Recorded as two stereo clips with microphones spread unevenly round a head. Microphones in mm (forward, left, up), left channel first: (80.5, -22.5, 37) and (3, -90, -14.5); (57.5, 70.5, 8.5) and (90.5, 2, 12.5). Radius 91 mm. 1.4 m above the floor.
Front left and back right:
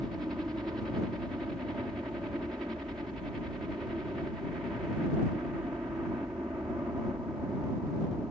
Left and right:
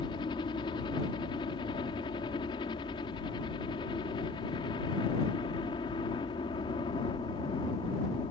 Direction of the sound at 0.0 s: 140° left.